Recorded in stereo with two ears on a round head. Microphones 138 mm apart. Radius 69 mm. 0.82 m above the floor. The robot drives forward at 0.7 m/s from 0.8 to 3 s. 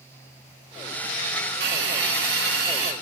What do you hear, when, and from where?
1.6 s a hiss: 90° right, 3.5 m; by 2.9 s 75° right (ahead or behind), 3.5 m